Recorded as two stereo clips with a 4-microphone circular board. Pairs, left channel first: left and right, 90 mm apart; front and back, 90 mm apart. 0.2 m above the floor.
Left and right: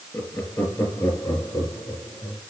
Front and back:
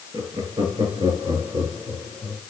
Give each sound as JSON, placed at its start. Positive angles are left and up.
{"t": 0.1, "sound": "laughter", "azimuth_deg": 150, "distance_m": 4.5}